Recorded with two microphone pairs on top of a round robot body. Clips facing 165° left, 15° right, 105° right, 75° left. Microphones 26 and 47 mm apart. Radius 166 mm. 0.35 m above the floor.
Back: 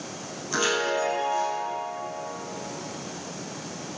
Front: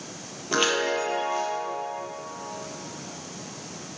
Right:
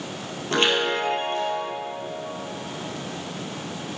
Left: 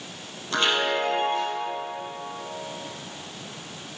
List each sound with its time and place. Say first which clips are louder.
0.5 s a chime: front 1 dB, right 2 dB; 70° right, 3.5 m